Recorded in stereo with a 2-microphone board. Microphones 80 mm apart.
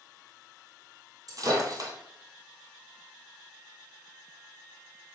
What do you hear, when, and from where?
1.3 s breaking glass: 50° right (ahead or behind), 1.6 m